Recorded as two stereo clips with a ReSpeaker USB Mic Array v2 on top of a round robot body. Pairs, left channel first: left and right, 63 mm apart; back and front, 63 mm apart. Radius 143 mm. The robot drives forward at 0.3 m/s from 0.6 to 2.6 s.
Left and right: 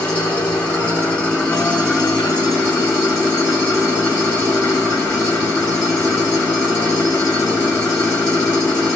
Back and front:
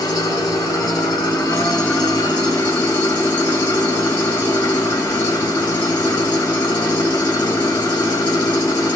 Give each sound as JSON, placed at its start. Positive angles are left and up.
{"t": 0.0, "sound": "an engine running", "azimuth_deg": 160, "distance_m": 3.0}